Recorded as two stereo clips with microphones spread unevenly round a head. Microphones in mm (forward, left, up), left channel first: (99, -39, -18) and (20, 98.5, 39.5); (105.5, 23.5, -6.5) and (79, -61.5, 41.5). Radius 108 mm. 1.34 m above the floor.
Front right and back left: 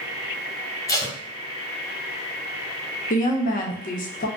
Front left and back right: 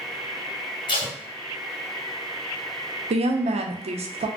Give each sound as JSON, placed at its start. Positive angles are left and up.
{"t": 0.9, "sound": "tape being pulled", "azimuth_deg": 25, "distance_m": 1.4}
{"t": 3.1, "sound": "a woman speaking", "azimuth_deg": -90, "distance_m": 0.5}